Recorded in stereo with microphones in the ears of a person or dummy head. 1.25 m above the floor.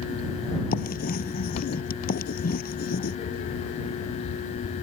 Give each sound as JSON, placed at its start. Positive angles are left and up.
{"t": 0.7, "sound": "writing", "side_deg": 45}